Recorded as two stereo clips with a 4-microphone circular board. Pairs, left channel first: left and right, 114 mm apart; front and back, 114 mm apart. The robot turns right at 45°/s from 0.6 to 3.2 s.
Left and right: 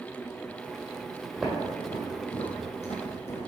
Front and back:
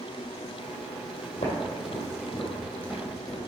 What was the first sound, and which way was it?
Footsteps, straight ahead.